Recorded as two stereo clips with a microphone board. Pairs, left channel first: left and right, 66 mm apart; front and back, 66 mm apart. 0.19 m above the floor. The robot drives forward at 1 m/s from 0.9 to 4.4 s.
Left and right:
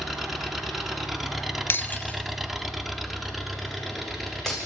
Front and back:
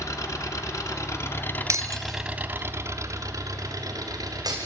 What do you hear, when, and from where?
0.0 s an engine running: 5° right, 1.4 m; by 4.7 s straight behind, 2.5 m
1.7 s breaking glass: 140° left, 0.6 m; by 4.6 s 175° left, 3 m